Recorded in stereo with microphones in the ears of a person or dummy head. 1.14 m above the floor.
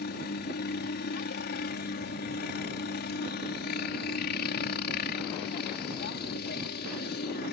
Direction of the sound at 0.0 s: 45° left (ahead or behind).